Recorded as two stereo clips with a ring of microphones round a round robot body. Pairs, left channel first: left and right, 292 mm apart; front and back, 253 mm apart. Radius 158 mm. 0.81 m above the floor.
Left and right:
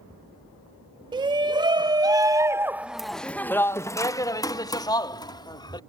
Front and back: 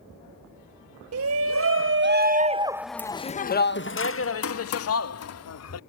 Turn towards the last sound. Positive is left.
turn(degrees=15)